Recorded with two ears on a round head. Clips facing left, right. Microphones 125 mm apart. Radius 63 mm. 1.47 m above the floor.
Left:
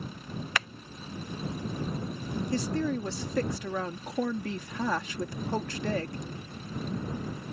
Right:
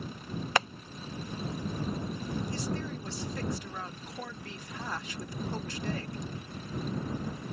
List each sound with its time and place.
0.6 s tapping: 25° right (ahead or behind)
2.5 s a woman speaking: 60° left (ahead or behind)